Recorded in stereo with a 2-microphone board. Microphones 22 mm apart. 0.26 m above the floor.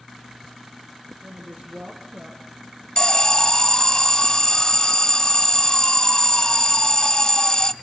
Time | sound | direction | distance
1.2 | a woman speaking | 75° right (ahead or behind) | 4 m
3.0 | an alarm | 30° left (ahead or behind) | 0.9 m